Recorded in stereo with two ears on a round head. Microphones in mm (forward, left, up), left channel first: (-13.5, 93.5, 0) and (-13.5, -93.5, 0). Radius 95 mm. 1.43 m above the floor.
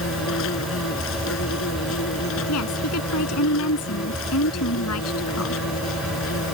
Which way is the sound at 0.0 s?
75° left (ahead or behind).